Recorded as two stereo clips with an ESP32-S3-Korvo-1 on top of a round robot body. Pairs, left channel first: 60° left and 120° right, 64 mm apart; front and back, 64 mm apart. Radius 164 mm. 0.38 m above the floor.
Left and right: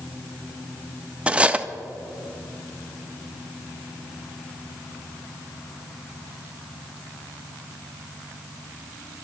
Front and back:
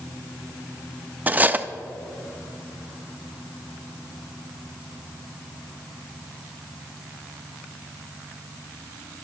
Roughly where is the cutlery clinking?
Behind.